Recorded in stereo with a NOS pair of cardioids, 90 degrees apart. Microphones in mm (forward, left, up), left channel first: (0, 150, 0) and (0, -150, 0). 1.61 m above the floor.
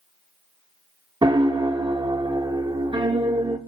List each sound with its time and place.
1.2 s a piano: 15° right, 0.8 m